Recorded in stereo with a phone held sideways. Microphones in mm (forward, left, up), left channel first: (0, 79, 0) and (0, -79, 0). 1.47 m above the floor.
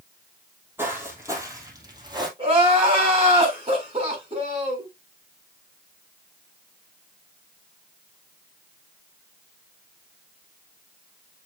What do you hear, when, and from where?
0.8 s footsteps: 15° right (ahead or behind), 3 m; by 2.3 s 30° right (ahead or behind), 2.5 m
2.4 s crying: 40° right (ahead or behind), 2.5 m